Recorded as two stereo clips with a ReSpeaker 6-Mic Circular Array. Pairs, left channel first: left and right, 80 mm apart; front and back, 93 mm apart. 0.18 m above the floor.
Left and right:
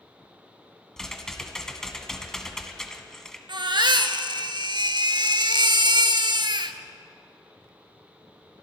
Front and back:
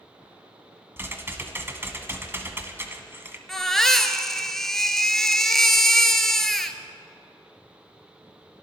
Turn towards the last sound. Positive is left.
turn(degrees=-85)